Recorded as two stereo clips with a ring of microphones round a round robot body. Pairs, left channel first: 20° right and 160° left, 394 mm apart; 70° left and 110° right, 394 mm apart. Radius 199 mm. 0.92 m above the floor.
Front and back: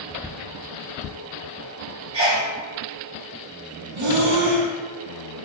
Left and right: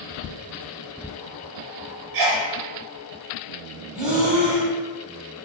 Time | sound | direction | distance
2.1 | a sneeze | 125° right | 0.6 m
4.0 | breathing | 160° left | 0.9 m